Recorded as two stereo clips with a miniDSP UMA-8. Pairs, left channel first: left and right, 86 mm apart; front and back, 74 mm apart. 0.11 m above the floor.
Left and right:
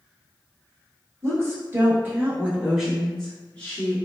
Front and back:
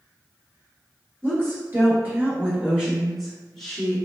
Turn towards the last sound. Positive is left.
turn(degrees=75)